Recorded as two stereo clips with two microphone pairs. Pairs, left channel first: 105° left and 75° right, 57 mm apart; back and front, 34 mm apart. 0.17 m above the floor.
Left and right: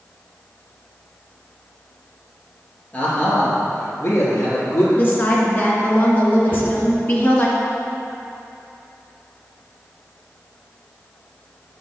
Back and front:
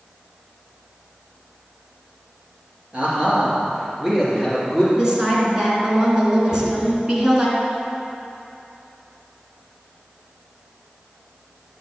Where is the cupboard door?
50° left, 2.5 m.